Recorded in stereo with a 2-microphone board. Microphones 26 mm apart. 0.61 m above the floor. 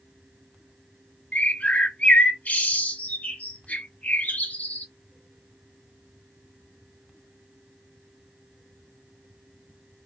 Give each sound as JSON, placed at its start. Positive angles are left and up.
{"t": 1.3, "sound": "a bird", "side_deg": 75, "distance_m": 1.4}